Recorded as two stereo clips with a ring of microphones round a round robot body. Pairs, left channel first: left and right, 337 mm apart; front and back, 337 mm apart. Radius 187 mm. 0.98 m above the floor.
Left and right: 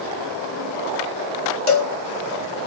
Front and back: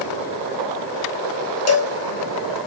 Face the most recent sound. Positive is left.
turn(degrees=40)